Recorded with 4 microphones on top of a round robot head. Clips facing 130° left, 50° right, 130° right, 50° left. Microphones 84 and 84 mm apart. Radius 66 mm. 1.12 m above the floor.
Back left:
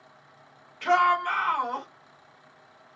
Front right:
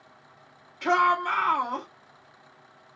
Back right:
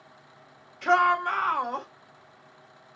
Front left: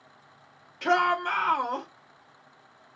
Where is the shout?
20° left, 2 m.